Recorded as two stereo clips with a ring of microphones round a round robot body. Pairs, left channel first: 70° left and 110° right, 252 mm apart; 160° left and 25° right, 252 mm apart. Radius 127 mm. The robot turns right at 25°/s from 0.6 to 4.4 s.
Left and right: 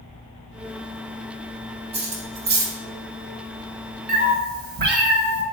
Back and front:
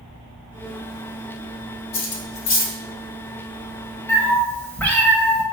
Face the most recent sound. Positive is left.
turn(degrees=-125)